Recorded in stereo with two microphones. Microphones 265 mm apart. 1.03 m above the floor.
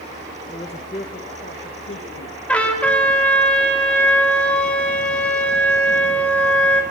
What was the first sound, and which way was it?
A man speaking, 15° left (ahead or behind).